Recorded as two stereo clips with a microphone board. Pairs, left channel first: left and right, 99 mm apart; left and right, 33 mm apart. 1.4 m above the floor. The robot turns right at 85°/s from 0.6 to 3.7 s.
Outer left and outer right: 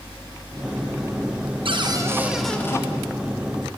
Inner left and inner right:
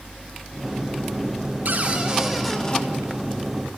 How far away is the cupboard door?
About 0.6 m.